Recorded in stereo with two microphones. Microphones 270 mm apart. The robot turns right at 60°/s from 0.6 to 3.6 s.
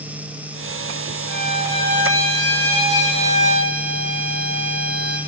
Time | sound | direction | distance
1.3 | a violin | 175° right | 5 m